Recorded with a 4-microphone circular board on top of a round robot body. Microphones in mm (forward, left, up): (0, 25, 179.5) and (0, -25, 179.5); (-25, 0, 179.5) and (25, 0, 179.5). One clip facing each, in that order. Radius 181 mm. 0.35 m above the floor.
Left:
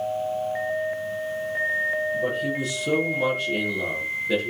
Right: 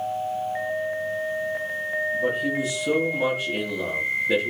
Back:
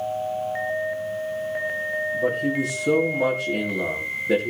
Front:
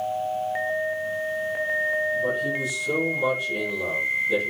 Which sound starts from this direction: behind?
A man speaking, at 2.1 s.